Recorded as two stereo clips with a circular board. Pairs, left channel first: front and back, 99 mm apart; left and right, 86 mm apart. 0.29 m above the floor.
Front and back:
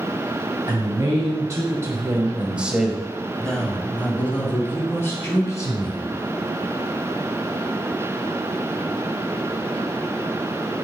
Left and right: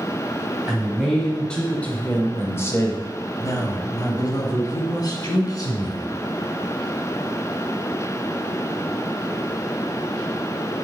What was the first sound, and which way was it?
A man speaking, 175° right.